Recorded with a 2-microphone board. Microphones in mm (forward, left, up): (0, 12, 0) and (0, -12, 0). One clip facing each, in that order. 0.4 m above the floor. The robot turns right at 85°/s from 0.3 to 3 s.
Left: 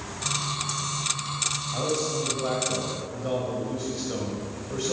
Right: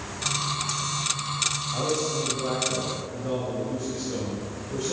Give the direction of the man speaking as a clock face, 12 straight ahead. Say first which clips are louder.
Right 1 dB; 12 o'clock.